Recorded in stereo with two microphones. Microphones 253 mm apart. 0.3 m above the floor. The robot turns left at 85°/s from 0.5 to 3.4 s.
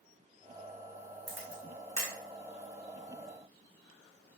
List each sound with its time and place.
1.3 s a camera shutter: 45° right (ahead or behind), 3.5 m; by 2.1 s 65° right (ahead or behind), 3.5 m